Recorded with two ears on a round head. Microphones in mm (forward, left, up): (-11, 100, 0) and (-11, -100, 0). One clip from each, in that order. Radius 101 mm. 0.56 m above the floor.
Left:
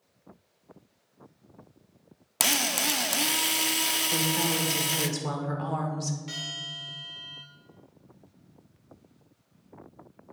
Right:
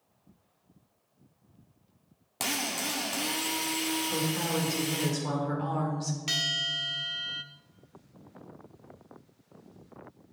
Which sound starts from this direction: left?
A drill, at 2.4 s.